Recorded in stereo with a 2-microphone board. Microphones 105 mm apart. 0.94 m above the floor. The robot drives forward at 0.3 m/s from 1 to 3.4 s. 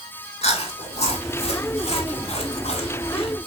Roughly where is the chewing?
Left.